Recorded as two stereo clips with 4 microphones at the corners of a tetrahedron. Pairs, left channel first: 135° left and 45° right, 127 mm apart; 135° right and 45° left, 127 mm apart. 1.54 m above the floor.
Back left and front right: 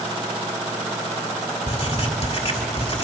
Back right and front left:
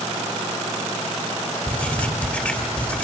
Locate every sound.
1.7 s writing: 150° left, 1.7 m